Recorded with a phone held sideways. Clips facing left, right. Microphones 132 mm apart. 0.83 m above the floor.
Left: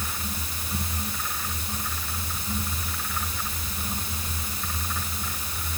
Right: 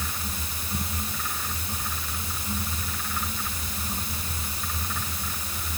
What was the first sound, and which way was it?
Only background noise.